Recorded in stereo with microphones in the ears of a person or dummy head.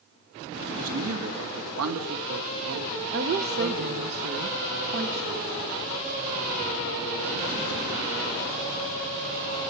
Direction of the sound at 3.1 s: 50° right (ahead or behind).